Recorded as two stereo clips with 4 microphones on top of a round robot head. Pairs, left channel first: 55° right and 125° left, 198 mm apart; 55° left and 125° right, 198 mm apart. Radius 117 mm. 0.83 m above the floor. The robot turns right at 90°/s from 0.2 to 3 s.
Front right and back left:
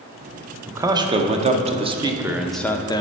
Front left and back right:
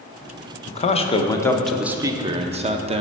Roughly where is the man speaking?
Ahead left.